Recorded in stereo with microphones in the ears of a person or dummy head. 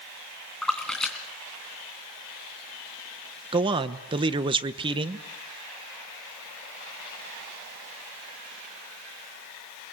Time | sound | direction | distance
0.6 | a splash | 5° left (ahead or behind) | 3 m
3.5 | a man speaking | 25° right (ahead or behind) | 1.1 m